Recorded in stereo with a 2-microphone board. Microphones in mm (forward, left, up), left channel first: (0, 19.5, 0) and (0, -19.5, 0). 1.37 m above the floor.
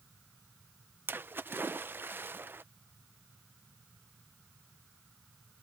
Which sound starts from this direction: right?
A splash, at 1.1 s.